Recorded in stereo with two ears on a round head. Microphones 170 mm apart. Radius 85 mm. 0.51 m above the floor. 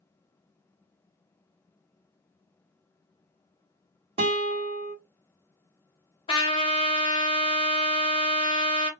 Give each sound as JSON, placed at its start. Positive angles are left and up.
{"t": 4.2, "sound": "a guitar", "side_deg": -30, "distance_m": 1.3}
{"t": 6.3, "sound": "a trumpet", "side_deg": 30, "distance_m": 0.9}